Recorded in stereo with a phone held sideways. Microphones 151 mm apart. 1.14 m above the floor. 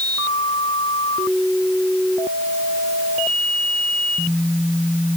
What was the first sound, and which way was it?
Only background noise.